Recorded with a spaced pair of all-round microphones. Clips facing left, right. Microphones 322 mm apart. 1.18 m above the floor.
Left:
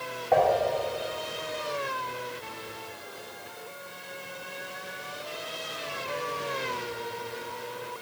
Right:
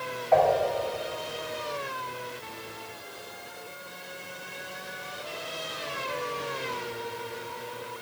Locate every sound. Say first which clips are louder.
0.3 s dishes clattering: right 1 dB; 55° left (ahead or behind), 1.9 m